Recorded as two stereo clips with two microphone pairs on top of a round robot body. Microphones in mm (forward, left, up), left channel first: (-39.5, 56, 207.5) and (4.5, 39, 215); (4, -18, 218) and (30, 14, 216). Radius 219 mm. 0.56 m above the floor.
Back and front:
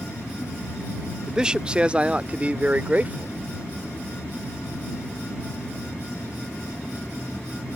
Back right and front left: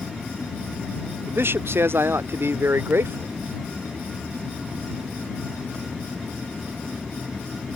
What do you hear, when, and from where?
1.3 s a man speaking: 60° left; by 3.4 s 35° left